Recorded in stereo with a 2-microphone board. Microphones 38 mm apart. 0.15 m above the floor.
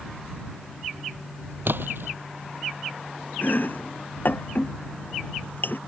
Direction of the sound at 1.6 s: 70° right (ahead or behind).